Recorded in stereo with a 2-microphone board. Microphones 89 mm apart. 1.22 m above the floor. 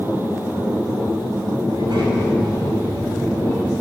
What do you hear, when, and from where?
1.7 s a child speaking: 60° right (ahead or behind), 5 m